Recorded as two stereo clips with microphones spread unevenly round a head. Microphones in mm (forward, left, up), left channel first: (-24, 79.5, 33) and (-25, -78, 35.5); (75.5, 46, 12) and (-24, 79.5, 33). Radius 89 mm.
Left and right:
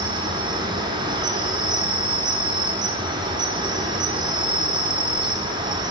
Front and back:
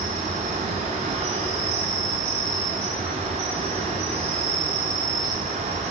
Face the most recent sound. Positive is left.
turn(degrees=-155)